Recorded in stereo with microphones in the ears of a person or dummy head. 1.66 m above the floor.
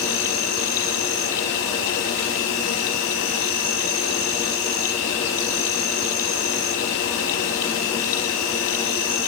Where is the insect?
65° left (ahead or behind), 3 m.